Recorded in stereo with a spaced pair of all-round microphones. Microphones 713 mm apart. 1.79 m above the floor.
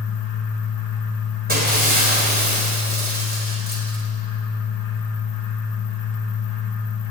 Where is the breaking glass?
15° right (ahead or behind), 3.5 m.